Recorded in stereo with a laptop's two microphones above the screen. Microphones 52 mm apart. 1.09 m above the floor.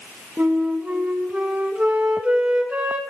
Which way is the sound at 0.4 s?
25° right (ahead or behind).